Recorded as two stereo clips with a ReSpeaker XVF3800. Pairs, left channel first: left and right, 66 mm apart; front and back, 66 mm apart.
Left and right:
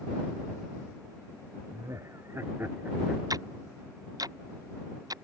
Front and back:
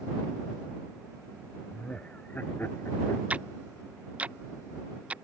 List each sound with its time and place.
1.7 s laughter: 70° right; by 3.2 s 30° right
3.3 s ticking: 110° right